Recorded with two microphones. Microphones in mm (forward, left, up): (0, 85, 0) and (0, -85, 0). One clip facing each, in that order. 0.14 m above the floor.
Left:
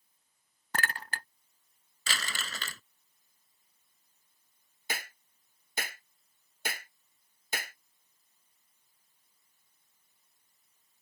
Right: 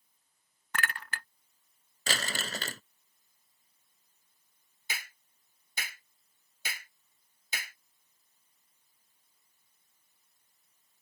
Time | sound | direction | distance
0.7 | a clink | 40° left (ahead or behind) | ?
2.1 | crumpling | 45° right (ahead or behind) | ?
4.9 | a clap | 55° left (ahead or behind) | ?